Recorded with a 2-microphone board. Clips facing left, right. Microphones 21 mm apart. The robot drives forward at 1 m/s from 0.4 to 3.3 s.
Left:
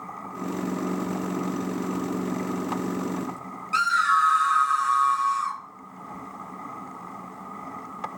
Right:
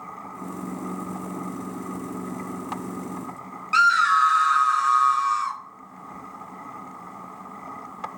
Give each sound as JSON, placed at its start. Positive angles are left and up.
{"t": 3.7, "sound": "a scream", "side_deg": -20, "distance_m": 0.7}